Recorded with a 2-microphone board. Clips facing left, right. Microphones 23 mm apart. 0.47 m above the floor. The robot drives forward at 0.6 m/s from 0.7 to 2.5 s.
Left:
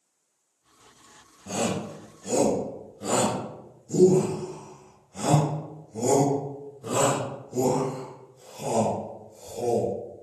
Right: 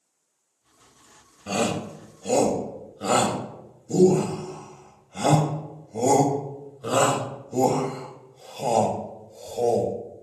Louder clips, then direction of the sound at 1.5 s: Right 3 dB; 65° right (ahead or behind).